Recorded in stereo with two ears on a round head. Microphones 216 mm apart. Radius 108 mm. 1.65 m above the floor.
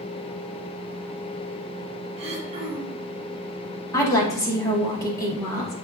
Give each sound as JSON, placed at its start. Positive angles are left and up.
{"t": 2.2, "sound": "throat clearing", "side_deg": -30, "distance_m": 2.0}
{"t": 3.9, "sound": "a woman speaking", "side_deg": 15, "distance_m": 2.0}